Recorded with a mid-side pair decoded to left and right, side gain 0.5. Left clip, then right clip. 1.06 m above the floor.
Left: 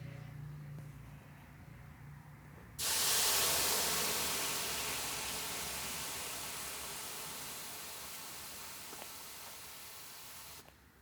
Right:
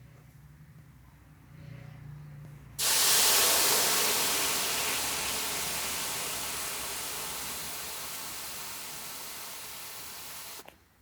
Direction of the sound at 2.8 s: 45° right.